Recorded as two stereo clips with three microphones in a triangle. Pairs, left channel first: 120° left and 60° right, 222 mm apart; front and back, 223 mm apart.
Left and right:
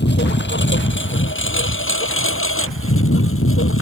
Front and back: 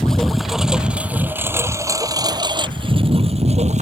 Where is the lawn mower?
85° left; by 3.8 s 125° left.